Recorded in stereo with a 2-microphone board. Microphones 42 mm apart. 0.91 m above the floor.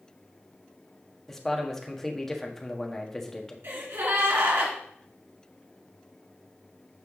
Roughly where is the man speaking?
Centre.